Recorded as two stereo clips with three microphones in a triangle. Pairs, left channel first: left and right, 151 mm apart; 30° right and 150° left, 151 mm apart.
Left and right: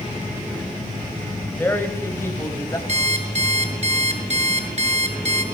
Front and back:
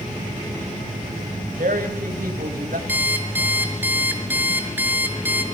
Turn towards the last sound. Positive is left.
turn(degrees=-130)